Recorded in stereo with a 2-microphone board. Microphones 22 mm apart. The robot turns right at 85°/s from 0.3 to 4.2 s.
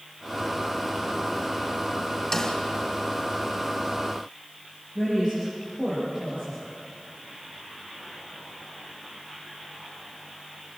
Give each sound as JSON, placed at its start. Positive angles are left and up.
{"t": 2.3, "sound": "a snare drum", "side_deg": 15, "distance_m": 2.5}
{"t": 5.0, "sound": "a woman speaking", "side_deg": -15, "distance_m": 9.0}